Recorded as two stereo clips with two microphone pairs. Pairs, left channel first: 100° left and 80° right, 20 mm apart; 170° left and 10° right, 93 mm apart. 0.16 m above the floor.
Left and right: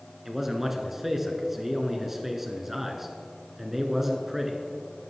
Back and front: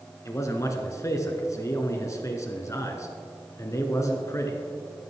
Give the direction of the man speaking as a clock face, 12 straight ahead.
5 o'clock.